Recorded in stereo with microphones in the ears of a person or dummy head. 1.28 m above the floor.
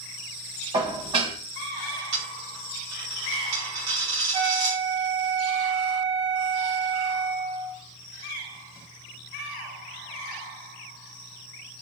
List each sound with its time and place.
0.7 s dishes clattering: 30° right (ahead or behind), 0.8 m
2.1 s a dropped coin: 25° right (ahead or behind), 0.9 m
4.3 s a flute: 55° right (ahead or behind), 1.8 m